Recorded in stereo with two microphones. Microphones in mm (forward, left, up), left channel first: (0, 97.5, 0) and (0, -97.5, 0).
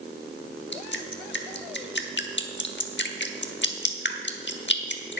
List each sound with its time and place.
0.7 s dripping: 65° left (ahead or behind), 1.0 m